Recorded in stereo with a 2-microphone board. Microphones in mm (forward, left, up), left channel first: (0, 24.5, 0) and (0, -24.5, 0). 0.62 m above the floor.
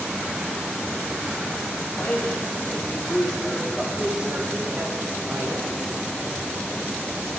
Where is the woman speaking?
50° left (ahead or behind), 3.5 m; by 5.7 s 70° right (ahead or behind), 3 m.